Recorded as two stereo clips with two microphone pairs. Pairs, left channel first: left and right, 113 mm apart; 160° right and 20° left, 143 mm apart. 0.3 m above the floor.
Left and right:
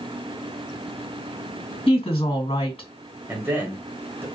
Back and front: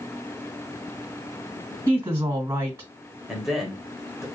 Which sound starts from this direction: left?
A woman speaking, at 1.9 s.